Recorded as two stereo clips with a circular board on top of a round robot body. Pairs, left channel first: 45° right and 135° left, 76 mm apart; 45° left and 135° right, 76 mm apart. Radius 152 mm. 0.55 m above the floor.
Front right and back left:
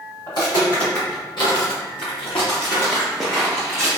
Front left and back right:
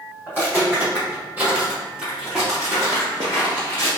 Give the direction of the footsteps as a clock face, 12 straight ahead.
2 o'clock.